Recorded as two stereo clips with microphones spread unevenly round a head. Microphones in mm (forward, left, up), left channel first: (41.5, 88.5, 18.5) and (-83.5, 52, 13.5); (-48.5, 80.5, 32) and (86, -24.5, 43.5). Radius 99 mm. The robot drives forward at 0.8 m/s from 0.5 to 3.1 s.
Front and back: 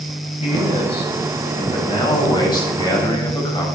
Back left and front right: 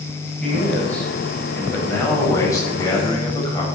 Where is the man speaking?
60° left, 7 m; by 3.6 s 75° left, 6 m.